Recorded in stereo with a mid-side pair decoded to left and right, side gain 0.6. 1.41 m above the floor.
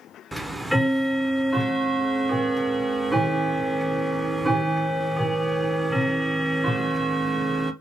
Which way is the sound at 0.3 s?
Straight ahead.